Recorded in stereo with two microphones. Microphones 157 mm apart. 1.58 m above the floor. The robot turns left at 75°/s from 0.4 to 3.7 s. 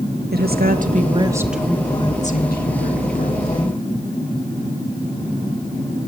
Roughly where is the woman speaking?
Right.